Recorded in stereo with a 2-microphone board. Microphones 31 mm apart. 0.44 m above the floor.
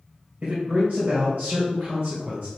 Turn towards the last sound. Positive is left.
turn(degrees=-60)  # may be behind; listen again after turning